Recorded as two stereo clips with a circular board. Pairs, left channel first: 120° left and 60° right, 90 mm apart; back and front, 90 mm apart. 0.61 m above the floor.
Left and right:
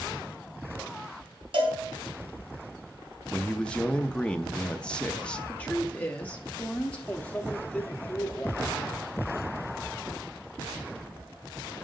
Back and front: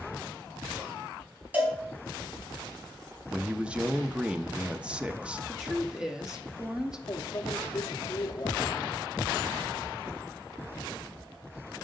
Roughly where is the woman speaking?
Left.